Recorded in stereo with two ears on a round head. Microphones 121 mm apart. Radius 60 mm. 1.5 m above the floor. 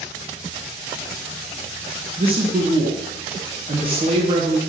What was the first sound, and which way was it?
A man speaking, 45° right (ahead or behind).